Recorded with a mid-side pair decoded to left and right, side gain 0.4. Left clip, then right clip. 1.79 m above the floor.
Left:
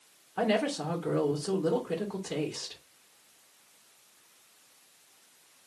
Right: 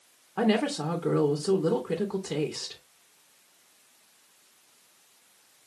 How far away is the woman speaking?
About 2.5 m.